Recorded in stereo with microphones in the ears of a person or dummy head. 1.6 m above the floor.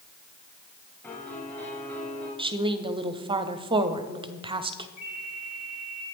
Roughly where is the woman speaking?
Right.